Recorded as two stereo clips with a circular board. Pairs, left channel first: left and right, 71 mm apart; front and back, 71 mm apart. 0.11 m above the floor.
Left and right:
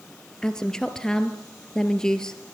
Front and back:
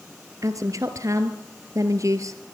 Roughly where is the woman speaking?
Behind.